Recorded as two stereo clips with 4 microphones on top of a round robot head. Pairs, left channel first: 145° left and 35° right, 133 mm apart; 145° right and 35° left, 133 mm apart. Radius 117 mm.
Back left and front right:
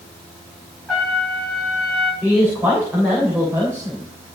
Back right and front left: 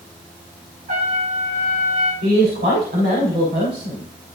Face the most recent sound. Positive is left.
turn(degrees=40)